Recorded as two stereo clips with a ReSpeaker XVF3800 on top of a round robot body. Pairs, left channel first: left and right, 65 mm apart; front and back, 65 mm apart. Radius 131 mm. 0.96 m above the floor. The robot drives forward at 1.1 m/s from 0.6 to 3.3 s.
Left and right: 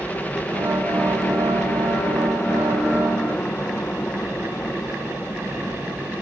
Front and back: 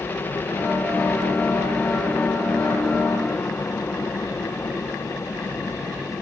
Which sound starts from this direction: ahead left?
A helicopter, at 0.0 s.